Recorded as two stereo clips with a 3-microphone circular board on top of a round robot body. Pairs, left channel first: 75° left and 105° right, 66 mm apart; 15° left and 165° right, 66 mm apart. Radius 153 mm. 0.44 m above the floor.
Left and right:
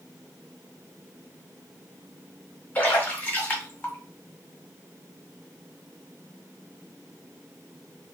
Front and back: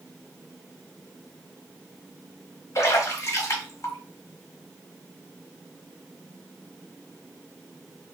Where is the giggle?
No giggle in this recording.